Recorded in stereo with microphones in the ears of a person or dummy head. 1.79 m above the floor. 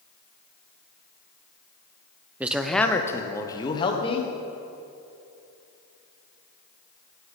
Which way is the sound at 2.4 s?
10° right (ahead or behind).